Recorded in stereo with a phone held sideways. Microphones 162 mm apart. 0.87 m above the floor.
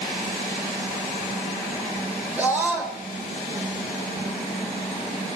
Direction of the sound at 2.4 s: 10° right (ahead or behind).